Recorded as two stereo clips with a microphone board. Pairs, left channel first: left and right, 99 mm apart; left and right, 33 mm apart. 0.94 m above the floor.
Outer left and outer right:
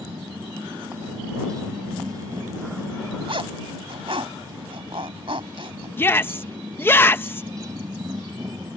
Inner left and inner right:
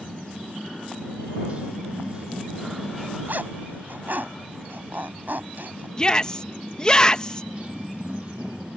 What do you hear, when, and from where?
0.0 s a motorcycle: 35° right (ahead or behind)
3.3 s a zipper: 65° right (ahead or behind)
6.0 s a shout: 20° left (ahead or behind)